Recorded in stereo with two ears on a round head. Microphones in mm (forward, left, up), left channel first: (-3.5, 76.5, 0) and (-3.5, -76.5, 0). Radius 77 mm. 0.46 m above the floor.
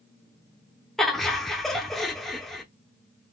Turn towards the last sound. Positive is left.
turn(degrees=0)  # may be behind; listen again after turning